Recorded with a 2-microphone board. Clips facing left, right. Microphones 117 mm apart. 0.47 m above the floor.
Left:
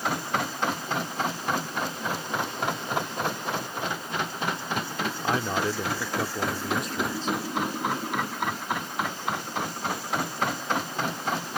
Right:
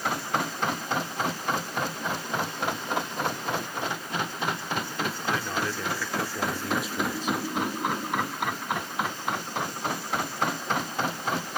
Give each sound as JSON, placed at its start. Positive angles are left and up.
{"t": 5.2, "sound": "a man speaking", "side_deg": 35}